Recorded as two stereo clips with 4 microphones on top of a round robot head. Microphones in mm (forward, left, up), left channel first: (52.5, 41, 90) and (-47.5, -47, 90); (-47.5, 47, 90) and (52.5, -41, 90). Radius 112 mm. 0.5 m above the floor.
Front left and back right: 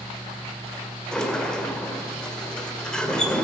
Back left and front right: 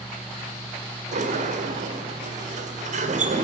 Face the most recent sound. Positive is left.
turn(degrees=-40)